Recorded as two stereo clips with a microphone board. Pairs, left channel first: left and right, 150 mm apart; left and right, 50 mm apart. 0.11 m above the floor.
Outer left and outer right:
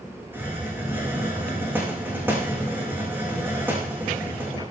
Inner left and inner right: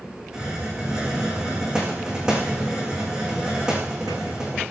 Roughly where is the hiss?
Centre.